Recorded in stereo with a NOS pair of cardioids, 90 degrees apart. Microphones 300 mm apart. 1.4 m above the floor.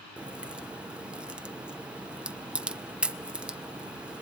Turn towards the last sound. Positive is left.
turn(degrees=-5)